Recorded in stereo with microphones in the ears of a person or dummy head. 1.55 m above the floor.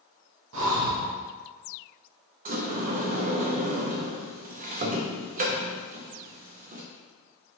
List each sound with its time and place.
0.5 s breathing: 70° right (ahead or behind), 0.8 m
2.5 s a sliding door: 45° right (ahead or behind), 0.5 m